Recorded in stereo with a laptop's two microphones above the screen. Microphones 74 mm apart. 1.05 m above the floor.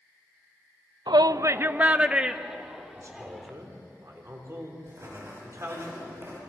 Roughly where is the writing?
Right.